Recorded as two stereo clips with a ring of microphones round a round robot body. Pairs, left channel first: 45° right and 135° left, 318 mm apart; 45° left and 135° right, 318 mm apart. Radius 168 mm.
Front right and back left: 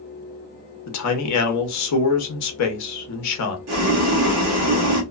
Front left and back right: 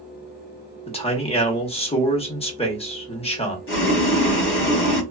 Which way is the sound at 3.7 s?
95° left.